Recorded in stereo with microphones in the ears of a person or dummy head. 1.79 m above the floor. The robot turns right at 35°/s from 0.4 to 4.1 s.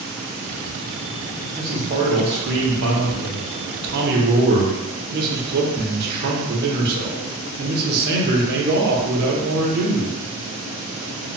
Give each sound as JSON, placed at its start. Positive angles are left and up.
{"t": 1.6, "sound": "a man speaking", "azimuth_deg": -150, "distance_m": 0.7}